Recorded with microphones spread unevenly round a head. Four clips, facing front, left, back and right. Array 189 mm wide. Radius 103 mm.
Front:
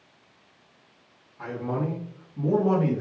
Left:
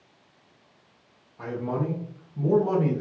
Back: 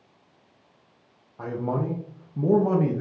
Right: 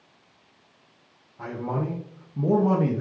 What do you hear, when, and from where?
1.4 s a man speaking: straight behind, 0.9 m; by 3.0 s 125° right, 1.2 m